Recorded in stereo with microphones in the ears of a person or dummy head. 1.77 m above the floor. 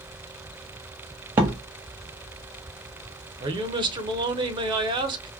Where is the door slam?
15° right (ahead or behind), 0.5 m.